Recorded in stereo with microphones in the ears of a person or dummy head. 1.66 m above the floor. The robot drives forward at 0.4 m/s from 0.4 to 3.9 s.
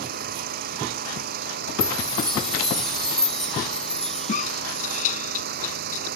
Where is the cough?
45° left (ahead or behind).